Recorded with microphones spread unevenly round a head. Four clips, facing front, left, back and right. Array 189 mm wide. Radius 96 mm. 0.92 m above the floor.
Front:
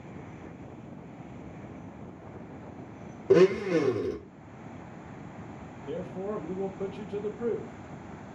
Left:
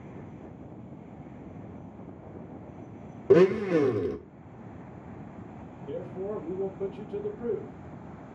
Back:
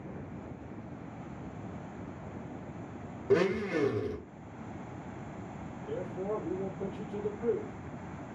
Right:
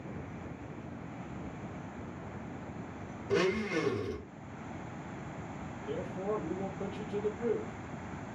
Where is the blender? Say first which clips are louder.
Left 10 dB, front 7 dB; 60° left, 0.6 m.